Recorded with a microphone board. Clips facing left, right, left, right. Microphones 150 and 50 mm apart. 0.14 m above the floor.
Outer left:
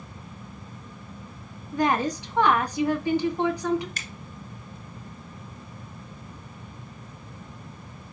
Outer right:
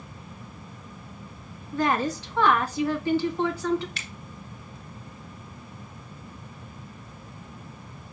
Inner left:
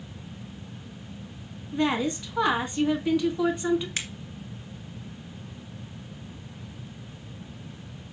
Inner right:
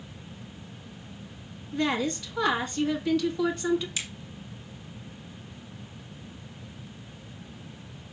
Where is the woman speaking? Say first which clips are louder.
Outer left 1 dB, inner left 2 dB; 15° left (ahead or behind), 1.7 m.